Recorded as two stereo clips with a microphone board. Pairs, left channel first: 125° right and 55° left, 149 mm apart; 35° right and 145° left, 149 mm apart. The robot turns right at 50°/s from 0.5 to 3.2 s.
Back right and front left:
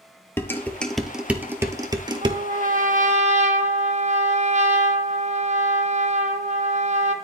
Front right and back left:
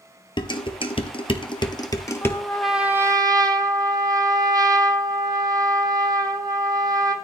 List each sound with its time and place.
0.4 s dishes clattering: 60° right, 1.1 m; by 2.4 s 35° left, 1.1 m
2.2 s a trumpet: 35° left, 1.1 m; by 7.2 s 85° left, 1.1 m